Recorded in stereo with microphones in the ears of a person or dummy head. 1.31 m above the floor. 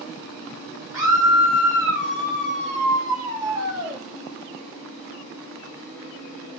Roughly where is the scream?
Centre.